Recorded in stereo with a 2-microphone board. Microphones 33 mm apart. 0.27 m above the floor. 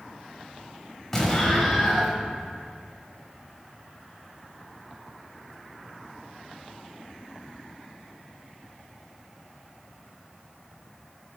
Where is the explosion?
15° left (ahead or behind), 1.2 m.